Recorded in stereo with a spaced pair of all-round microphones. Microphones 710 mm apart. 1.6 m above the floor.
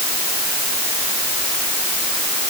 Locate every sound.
Only background noise.